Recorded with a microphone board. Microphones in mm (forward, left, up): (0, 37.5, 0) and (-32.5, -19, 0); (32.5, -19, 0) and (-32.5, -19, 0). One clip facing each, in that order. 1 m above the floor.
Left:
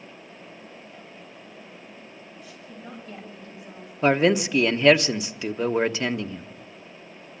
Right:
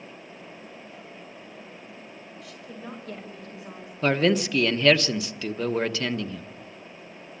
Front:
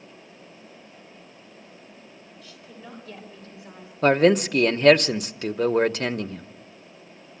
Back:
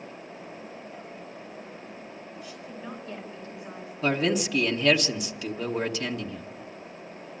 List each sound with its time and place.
2.4 s a woman speaking: 105° right, 5 m; by 3.9 s 115° right, 5.5 m
4.0 s a man speaking: 5° right, 1.0 m